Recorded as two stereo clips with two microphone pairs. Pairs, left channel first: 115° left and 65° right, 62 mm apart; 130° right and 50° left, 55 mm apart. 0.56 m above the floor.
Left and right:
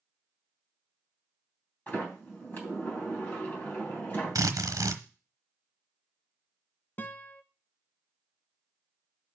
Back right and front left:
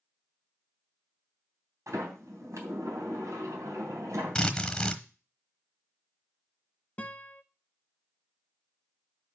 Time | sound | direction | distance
1.9 | a sliding door | 55° left | 3 m
4.3 | a drill | 55° right | 1.1 m
7.0 | a guitar | 170° left | 0.6 m